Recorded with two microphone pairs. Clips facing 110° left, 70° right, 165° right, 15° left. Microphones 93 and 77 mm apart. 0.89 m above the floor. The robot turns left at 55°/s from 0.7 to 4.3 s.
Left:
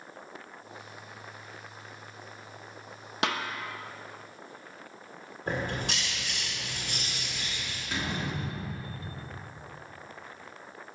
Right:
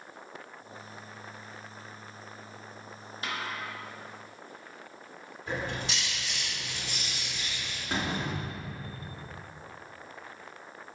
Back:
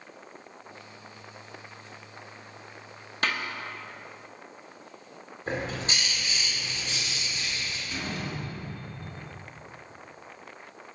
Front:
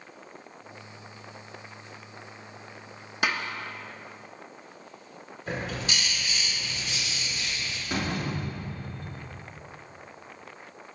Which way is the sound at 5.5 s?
140° left.